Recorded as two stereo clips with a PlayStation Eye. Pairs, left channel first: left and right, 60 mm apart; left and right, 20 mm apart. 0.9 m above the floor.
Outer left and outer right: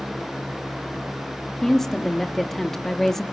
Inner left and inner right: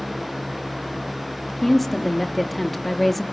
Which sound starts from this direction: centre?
A woman speaking, at 1.6 s.